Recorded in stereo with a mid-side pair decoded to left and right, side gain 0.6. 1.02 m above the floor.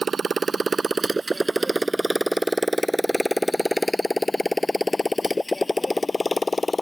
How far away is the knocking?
I don't hear knocking.